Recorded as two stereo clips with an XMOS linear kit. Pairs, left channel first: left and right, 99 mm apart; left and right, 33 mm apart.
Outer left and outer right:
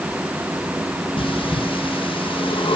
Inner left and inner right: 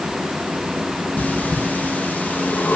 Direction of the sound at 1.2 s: 65° left (ahead or behind).